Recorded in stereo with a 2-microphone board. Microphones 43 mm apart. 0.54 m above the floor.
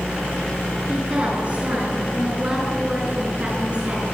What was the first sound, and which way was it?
A woman speaking, 30° right (ahead or behind).